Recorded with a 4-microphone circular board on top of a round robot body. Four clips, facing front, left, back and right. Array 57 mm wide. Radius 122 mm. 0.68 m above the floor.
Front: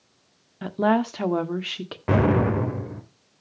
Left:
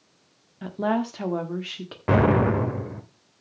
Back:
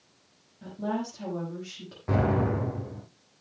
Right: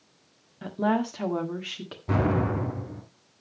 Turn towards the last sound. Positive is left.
turn(degrees=55)